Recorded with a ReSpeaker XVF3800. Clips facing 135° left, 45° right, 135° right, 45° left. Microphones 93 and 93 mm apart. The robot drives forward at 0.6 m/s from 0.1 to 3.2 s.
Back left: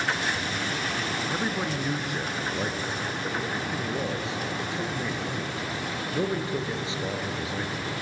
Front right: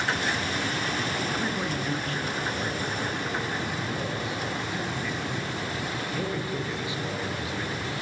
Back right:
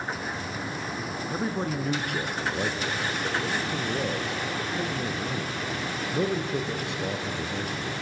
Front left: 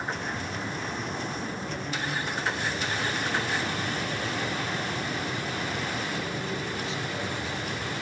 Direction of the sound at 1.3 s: 150° right.